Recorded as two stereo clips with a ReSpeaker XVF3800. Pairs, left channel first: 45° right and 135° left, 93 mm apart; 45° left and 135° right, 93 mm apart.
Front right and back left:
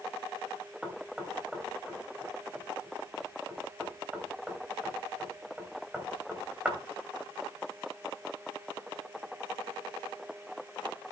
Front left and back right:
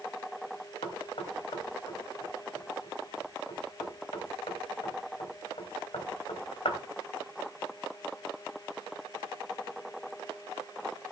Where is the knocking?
55° left, 3 m.